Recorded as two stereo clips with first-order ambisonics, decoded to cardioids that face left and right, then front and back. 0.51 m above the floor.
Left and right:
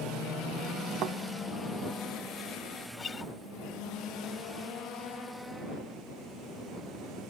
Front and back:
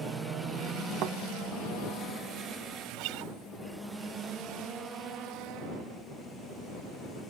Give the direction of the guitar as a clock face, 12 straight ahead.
7 o'clock.